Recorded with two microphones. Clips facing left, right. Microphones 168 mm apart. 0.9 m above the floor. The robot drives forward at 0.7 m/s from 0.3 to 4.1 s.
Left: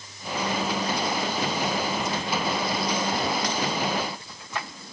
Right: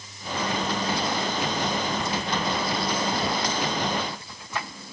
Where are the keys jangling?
No keys jangling in this recording.